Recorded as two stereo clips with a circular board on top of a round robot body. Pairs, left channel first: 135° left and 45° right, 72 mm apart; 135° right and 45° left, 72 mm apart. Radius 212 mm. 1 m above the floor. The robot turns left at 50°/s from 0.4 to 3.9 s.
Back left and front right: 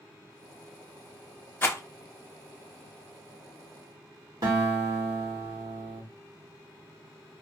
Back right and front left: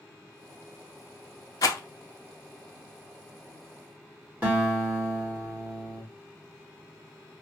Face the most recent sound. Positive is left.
turn(degrees=-20)